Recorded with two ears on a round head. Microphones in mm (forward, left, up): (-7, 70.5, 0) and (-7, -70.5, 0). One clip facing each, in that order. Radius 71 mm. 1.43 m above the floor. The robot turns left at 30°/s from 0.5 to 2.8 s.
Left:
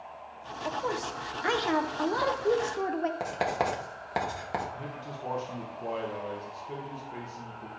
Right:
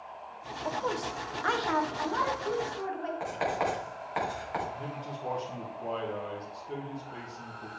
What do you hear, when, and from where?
0.7 s a woman speaking: straight behind, 0.8 m; by 3.1 s 120° left, 0.8 m
3.2 s writing: 45° left (ahead or behind), 2.5 m
4.8 s a man speaking: 5° left (ahead or behind), 1.3 m